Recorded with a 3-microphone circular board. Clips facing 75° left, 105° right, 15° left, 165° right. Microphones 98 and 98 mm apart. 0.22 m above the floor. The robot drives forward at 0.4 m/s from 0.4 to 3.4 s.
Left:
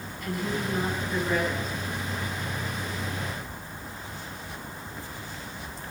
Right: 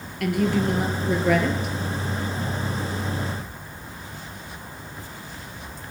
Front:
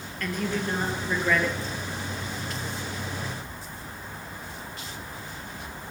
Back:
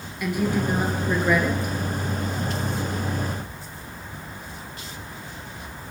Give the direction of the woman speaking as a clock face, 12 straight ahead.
3 o'clock.